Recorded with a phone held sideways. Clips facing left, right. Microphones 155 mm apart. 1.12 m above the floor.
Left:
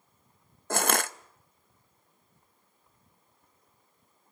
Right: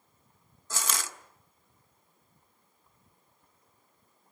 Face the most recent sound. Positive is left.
turn(degrees=60)  # may be behind; listen again after turning